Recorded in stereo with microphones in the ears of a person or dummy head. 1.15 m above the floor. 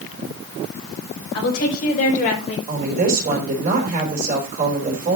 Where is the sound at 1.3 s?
55° left (ahead or behind), 5.5 m; by 2.6 s 35° left (ahead or behind), 5 m.